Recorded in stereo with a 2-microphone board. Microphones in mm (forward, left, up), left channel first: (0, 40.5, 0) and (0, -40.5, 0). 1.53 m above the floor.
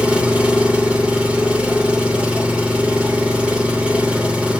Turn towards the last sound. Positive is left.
turn(degrees=-15)  # may be behind; listen again after turning